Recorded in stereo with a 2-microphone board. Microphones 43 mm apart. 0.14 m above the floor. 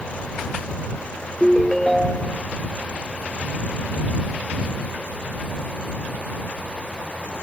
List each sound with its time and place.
1.4 s a ringtone: 10° left (ahead or behind)